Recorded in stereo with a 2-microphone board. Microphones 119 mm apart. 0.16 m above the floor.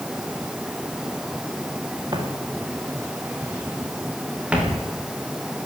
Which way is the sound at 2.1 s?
35° right (ahead or behind).